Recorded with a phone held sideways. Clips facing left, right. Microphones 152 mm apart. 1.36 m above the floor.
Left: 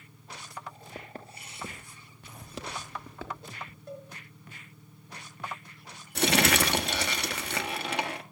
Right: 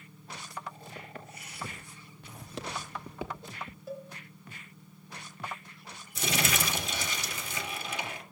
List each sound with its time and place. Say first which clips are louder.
0.9 s footsteps: left 2 dB; 35° left (ahead or behind), 1.6 m; by 3.8 s 30° right (ahead or behind), 1.5 m
3.9 s a cowbell: right 2 dB; 5° right (ahead or behind), 2 m
6.2 s crumpling: left 7 dB; 70° left (ahead or behind), 1.4 m